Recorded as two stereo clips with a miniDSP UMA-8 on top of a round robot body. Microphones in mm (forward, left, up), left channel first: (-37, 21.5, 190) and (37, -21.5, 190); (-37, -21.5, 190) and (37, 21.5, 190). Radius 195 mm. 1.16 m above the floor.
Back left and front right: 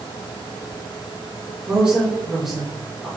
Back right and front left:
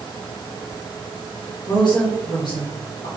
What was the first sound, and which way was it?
A woman speaking, 105° right.